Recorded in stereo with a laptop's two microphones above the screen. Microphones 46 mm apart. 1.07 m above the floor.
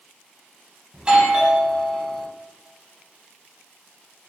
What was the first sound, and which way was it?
A doorbell, 25° right (ahead or behind).